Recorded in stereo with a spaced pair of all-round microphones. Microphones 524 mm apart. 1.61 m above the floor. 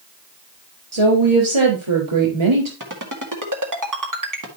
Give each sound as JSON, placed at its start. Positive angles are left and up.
{"t": 0.9, "sound": "a woman speaking", "side_deg": -65, "distance_m": 3.5}
{"t": 2.8, "sound": "a ringtone", "side_deg": -35, "distance_m": 1.9}